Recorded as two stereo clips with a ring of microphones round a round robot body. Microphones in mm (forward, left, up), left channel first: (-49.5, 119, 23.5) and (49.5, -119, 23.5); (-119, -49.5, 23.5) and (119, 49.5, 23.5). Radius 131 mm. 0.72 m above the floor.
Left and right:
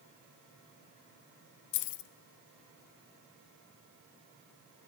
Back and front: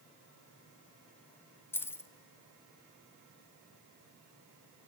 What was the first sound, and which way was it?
Keys jangling, 120° left.